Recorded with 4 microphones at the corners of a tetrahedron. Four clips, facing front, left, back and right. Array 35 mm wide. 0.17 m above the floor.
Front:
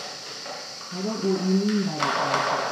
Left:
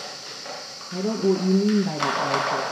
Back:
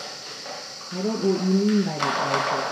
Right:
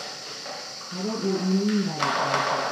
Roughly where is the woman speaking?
Behind left.